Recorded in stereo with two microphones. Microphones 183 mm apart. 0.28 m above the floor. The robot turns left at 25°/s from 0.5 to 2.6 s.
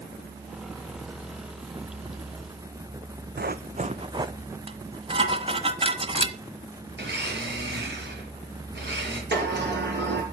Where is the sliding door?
70° right (ahead or behind), 5 m.